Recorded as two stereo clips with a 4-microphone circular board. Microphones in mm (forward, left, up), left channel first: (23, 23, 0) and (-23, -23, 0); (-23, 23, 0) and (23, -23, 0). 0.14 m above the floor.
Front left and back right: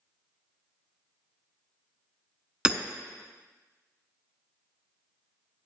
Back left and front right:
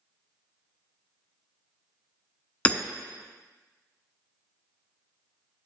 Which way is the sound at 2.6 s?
170° left.